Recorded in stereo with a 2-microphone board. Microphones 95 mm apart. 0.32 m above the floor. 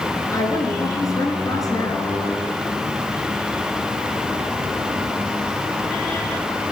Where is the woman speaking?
35° left (ahead or behind), 5 m.